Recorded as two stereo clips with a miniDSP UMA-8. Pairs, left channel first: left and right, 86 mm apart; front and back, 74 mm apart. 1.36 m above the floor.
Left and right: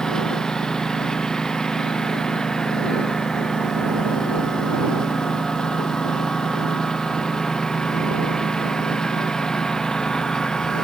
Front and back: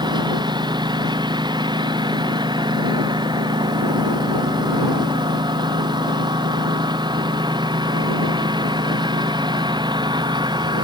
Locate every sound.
0.0 s a lawn mower: 175° left